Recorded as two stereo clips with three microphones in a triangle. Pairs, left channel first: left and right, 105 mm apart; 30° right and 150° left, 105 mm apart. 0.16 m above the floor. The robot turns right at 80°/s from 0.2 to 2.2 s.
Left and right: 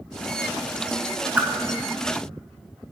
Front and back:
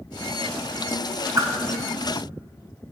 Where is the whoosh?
165° right, 0.7 m; by 1.5 s 155° right, 0.7 m.